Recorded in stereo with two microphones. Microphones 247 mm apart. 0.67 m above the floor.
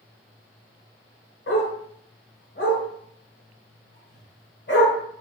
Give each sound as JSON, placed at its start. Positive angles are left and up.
{"t": 1.5, "sound": "a dog barking", "side_deg": 55, "distance_m": 1.2}